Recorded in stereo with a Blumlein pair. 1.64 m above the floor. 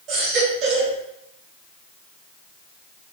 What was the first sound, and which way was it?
A baby crying, 35° right.